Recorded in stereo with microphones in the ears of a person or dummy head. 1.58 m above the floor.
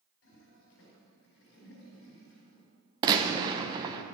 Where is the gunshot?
20° right (ahead or behind), 0.8 m.